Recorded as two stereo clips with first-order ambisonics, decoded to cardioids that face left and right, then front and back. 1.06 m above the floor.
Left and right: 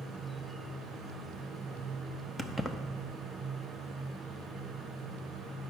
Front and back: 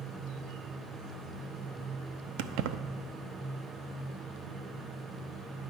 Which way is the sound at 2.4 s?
Straight behind.